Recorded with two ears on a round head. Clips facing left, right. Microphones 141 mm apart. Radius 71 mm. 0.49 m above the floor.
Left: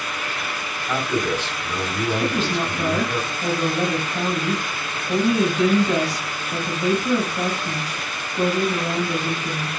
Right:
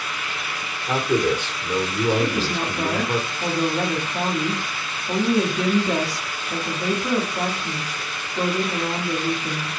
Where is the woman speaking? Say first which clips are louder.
Left 1 dB; 45° right (ahead or behind), 1.8 m.